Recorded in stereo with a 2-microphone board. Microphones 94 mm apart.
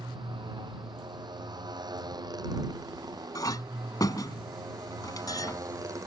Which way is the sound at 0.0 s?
55° right (ahead or behind).